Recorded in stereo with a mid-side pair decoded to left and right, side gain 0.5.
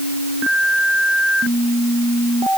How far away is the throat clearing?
I don't hear throat clearing.